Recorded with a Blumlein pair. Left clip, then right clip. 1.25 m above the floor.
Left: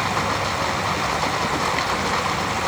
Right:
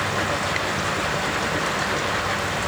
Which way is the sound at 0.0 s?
65° left.